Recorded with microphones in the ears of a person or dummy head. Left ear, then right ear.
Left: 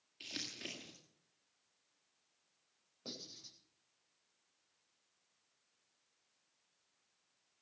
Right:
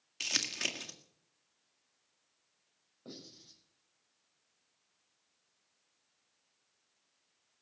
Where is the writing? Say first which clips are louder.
Left 2 dB; 75° left (ahead or behind), 8.5 m.